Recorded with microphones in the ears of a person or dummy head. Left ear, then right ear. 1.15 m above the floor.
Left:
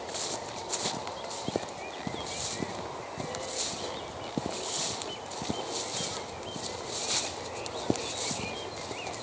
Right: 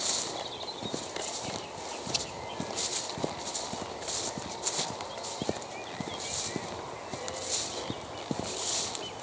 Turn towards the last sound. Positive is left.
No sound to turn to.